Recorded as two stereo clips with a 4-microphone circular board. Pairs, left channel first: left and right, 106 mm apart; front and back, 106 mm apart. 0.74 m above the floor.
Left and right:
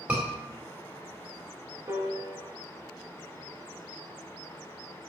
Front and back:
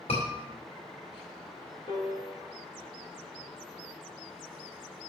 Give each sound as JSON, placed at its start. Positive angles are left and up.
{"t": 0.1, "sound": "a scream", "azimuth_deg": -20, "distance_m": 2.5}
{"t": 1.9, "sound": "a piano", "azimuth_deg": -35, "distance_m": 2.5}